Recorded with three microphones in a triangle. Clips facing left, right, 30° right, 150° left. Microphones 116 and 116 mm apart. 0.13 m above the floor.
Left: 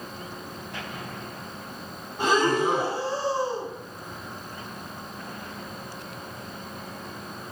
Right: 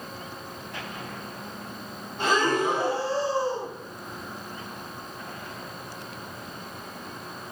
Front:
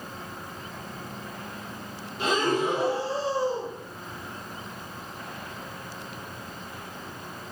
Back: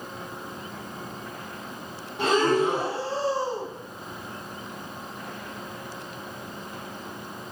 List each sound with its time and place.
2.2 s breathing: 170° left, 5 m